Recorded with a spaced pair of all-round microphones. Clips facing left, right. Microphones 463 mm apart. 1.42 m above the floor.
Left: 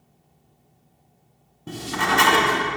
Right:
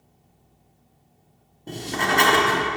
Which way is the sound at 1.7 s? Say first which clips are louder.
Even; 25° left (ahead or behind).